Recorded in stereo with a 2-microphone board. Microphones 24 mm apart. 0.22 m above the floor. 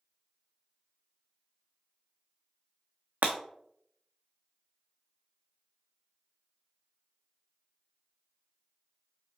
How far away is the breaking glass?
About 1.0 m.